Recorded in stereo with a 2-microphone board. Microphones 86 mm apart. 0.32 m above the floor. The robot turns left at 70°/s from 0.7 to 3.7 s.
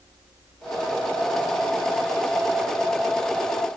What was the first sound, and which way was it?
Only background noise.